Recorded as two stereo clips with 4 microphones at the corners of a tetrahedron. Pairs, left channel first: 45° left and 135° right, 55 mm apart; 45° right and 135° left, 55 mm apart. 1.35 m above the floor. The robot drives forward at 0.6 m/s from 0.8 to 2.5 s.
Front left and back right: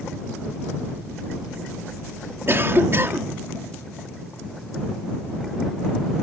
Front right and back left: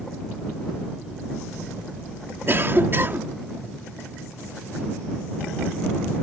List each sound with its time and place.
2.5 s a cough: straight behind